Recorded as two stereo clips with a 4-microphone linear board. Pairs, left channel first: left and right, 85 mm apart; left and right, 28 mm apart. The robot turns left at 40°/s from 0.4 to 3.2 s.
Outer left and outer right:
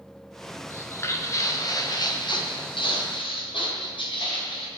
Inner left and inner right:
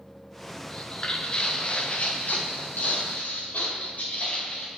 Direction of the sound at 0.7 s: 25° left (ahead or behind).